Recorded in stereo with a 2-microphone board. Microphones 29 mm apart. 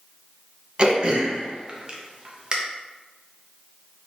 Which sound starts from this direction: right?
Throat clearing, at 0.8 s.